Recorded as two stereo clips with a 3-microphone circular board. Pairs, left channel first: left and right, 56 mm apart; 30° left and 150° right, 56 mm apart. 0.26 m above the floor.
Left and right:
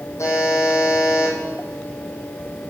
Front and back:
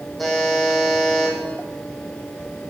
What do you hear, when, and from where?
0.2 s a buzzer: 120° left, 2 m